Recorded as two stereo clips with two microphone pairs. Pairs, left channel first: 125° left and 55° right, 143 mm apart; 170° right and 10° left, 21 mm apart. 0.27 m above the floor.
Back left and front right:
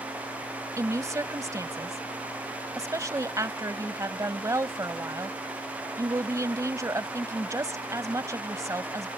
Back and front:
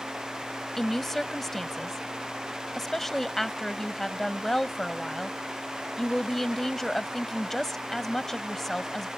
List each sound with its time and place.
0.8 s a woman speaking: 105° right